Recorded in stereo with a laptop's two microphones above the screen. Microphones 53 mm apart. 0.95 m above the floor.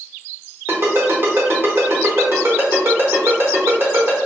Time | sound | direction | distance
0.7 | a ringtone | 50° right (ahead or behind) | 1.1 m